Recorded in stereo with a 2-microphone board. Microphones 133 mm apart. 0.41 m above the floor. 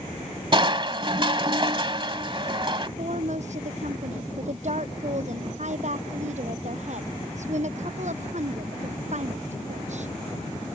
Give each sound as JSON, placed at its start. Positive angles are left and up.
{"t": 0.5, "sound": "crushing", "side_deg": -35}
{"t": 3.0, "sound": "a woman speaking", "side_deg": -55}